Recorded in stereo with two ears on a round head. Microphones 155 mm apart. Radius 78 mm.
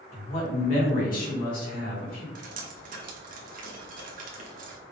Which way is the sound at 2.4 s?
50° right (ahead or behind).